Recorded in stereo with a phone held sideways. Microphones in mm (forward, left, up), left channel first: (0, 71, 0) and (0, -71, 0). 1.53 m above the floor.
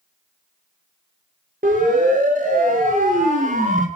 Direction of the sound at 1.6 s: 85° right.